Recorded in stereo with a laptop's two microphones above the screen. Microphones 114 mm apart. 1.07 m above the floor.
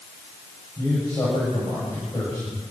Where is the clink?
No clink in this recording.